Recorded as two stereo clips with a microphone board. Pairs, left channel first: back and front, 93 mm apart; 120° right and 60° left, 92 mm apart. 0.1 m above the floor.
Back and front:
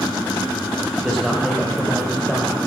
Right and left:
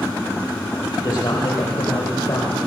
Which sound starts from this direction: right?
A man speaking, at 0.9 s.